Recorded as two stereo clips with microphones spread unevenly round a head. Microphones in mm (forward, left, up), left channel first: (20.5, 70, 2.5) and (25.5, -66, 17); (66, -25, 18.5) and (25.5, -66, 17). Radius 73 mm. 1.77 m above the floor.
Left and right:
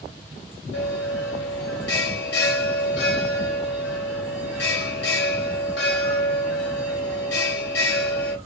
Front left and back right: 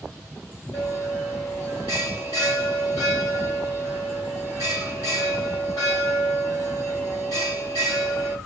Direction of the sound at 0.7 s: 105° left.